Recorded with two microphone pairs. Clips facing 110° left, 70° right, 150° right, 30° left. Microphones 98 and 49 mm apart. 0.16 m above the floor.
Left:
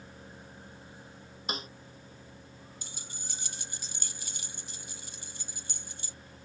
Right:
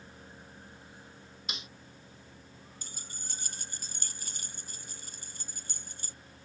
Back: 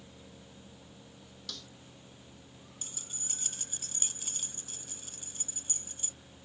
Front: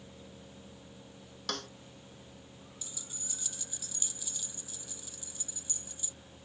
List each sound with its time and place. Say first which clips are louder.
1.5 s a snare drum: left 8 dB, front 10 dB; 65° left
2.8 s keys jangling: left 2 dB, back 2 dB; 110° right